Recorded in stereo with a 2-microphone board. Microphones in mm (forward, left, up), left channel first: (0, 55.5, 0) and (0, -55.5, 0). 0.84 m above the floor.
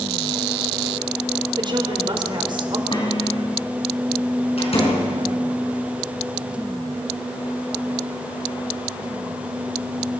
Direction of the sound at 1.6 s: 45° right (ahead or behind).